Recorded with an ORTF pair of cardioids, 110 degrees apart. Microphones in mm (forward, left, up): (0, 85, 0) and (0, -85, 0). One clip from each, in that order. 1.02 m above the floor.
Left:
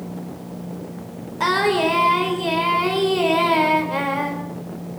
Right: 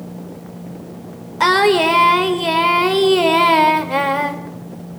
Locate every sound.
1.4 s singing: 40° right, 3 m